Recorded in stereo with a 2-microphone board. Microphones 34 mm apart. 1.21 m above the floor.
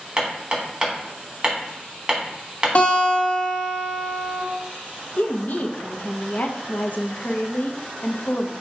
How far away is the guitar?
About 1.3 m.